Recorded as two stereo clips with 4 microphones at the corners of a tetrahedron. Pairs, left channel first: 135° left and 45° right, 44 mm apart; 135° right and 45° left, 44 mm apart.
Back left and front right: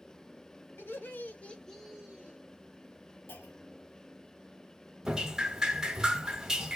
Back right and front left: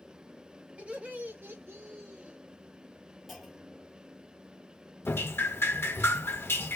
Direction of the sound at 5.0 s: 120° right.